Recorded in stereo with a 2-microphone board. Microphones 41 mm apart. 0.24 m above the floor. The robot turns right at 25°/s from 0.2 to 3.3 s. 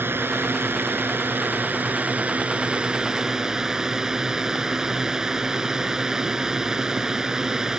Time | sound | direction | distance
0.0 | a drone | 95° right | ?